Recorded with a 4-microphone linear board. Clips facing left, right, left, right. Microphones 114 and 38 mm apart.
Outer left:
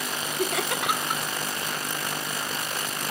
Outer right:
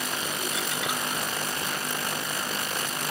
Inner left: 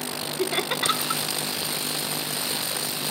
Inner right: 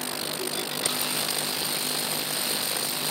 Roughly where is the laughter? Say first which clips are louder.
Outer left 4 dB, inner left 9 dB; left.